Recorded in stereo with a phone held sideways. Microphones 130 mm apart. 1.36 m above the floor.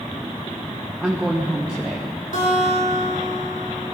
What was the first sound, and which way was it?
A woman speaking, 5° right (ahead or behind).